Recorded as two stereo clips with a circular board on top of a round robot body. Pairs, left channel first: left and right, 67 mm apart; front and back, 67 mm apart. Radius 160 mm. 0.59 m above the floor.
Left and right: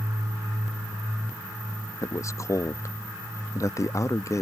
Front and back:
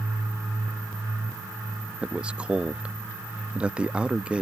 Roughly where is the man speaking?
Left.